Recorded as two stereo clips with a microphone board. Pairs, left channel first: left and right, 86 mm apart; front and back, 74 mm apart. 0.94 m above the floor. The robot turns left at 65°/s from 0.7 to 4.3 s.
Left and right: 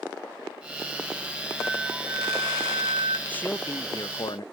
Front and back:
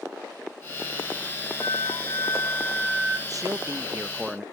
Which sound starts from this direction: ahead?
A flute, at 1.6 s.